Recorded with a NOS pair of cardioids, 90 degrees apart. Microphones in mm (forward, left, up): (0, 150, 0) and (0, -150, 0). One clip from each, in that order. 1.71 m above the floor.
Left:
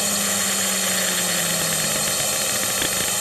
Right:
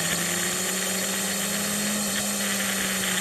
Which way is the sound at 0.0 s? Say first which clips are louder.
Left 4 dB; 40° left.